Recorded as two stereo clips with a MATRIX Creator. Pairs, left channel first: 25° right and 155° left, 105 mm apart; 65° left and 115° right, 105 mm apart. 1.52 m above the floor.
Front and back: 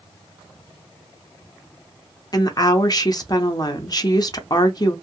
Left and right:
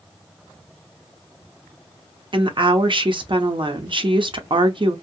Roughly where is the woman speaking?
Right.